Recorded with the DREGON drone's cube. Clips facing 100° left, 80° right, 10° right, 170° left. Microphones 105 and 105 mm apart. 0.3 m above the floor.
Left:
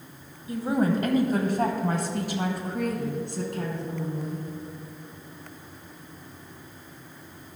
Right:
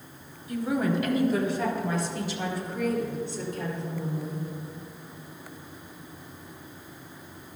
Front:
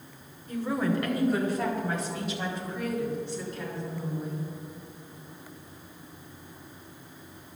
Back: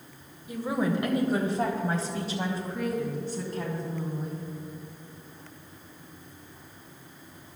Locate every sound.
0.5 s a woman speaking: 100° left, 1.1 m; by 4.5 s 125° left, 3 m